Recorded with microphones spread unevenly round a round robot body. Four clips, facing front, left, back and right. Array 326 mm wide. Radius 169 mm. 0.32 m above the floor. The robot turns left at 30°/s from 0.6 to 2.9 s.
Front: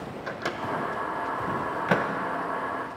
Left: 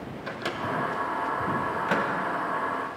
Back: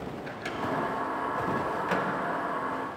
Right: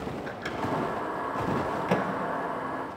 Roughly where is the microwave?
Ahead left.